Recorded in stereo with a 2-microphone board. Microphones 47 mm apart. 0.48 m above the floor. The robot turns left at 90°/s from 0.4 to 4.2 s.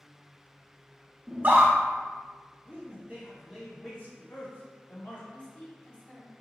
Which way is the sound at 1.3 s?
35° right (ahead or behind).